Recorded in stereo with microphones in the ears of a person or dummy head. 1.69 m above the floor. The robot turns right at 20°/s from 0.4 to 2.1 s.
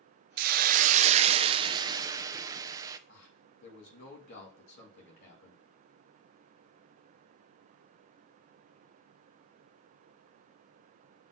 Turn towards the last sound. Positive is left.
turn(degrees=60)  # may be behind; listen again after turning